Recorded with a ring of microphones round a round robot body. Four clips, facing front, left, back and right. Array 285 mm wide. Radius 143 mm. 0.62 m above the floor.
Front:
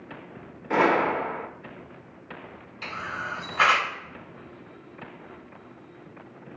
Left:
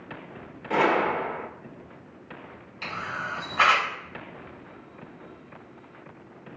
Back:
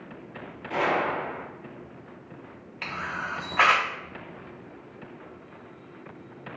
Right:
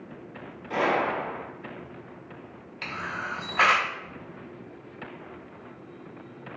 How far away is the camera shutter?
About 1.4 m.